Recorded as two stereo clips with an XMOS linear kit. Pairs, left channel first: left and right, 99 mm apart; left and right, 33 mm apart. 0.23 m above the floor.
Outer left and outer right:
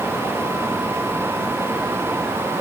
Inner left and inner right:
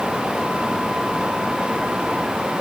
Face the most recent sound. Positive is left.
No sound to turn to.